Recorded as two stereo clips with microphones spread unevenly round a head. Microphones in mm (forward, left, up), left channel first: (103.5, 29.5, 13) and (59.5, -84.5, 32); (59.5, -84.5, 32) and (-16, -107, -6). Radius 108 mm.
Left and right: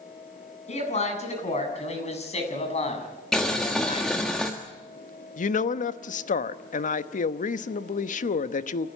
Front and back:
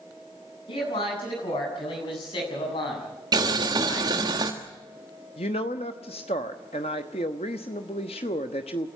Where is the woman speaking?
65° left, 0.9 m.